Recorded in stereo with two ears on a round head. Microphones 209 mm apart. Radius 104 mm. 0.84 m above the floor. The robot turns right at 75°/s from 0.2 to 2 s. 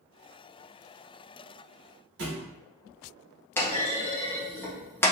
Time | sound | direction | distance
2.2 | a thud | 50° right (ahead or behind) | 1.2 m
3.6 | a clunk | 10° left (ahead or behind) | 0.7 m